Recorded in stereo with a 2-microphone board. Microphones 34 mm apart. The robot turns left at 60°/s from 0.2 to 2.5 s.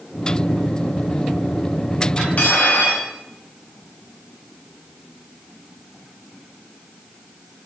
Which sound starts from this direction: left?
Cutlery clinking, at 2.2 s.